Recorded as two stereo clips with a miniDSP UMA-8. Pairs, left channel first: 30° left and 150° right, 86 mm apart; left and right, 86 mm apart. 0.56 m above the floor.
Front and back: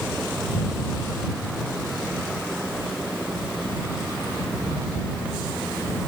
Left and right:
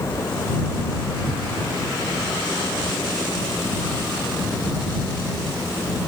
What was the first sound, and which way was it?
Only background noise.